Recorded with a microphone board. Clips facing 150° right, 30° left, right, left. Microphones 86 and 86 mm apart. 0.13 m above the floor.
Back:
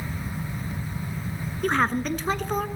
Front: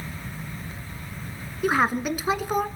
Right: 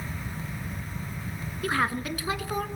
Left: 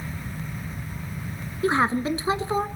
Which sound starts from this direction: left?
A woman speaking, at 1.6 s.